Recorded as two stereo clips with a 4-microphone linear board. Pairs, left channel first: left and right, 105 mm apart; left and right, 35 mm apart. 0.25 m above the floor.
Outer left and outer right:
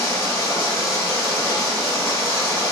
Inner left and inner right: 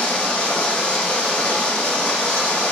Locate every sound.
0.0 s running water: 35° left (ahead or behind), 1.4 m